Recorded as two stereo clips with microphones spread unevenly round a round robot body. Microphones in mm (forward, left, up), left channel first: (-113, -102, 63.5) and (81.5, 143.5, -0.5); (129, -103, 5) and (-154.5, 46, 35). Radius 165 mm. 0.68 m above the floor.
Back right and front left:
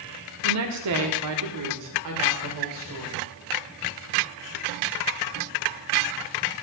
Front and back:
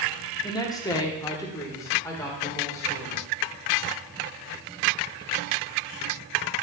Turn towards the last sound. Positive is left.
turn(degrees=55)